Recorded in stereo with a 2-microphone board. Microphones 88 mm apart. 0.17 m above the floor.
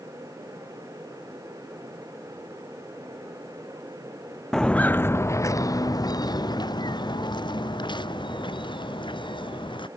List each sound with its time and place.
4.5 s footsteps: 5° left (ahead or behind); by 9.9 s 65° left (ahead or behind)